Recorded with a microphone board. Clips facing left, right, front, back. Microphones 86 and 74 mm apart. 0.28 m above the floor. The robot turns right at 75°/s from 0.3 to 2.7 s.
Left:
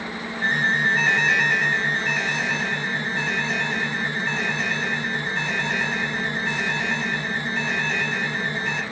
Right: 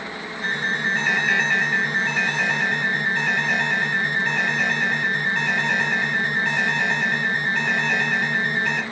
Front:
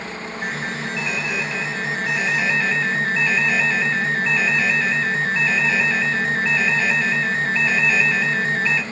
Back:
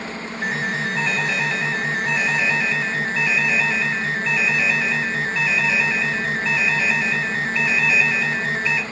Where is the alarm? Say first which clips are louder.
Left 3 dB, back 4 dB; 90° left, 2.5 m; by 8.8 s 100° right, 2.5 m.